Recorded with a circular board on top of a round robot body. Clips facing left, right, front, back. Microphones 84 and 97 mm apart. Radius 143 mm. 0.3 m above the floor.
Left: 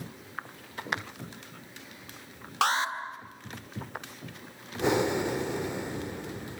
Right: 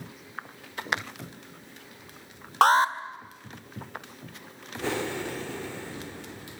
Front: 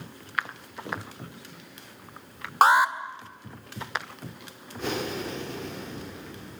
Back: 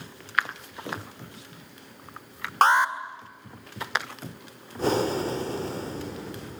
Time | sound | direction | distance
2.6 | an alarm | 80° right | 2 m
4.8 | breathing | 150° left | 1.5 m